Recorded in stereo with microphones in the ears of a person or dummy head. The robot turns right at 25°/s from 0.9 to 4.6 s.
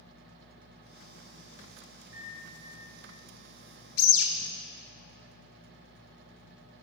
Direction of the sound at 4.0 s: 70° left (ahead or behind).